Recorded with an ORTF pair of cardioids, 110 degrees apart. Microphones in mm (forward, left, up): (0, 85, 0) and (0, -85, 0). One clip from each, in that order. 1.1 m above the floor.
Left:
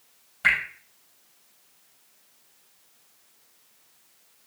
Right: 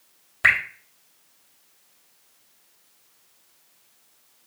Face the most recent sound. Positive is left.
turn(degrees=-60)